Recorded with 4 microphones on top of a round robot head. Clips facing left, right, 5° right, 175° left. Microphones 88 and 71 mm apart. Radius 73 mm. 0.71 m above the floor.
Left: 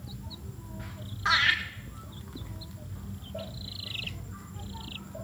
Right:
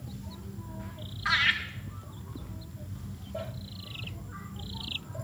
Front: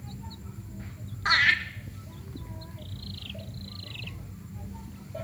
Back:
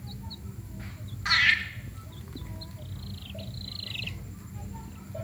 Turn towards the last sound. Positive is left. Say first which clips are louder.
# left 2 dB, front 1 dB
turn(degrees=30)